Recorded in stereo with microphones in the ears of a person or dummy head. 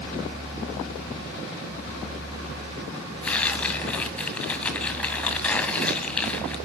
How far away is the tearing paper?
About 1.9 m.